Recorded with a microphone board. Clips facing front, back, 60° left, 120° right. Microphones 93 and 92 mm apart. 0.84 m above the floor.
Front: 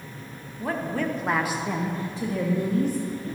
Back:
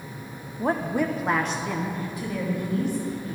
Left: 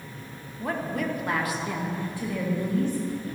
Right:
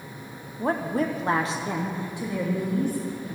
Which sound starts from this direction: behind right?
A woman speaking, at 0.6 s.